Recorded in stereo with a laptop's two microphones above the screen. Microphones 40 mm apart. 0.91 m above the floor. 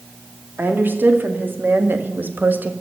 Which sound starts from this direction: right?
A woman speaking, at 0.6 s.